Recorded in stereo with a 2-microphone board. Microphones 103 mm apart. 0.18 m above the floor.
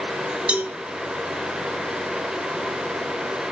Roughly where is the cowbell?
Centre.